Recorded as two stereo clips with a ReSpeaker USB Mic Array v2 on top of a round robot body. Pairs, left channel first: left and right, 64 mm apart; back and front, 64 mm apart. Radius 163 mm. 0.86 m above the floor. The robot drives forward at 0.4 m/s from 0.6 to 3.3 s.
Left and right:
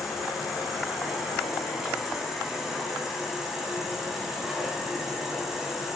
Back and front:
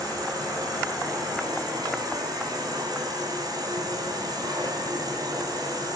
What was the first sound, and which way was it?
An insect, 5° right.